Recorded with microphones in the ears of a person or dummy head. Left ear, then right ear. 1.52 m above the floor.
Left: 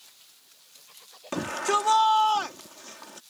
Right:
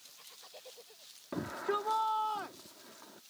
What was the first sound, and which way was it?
A shout, 85° left.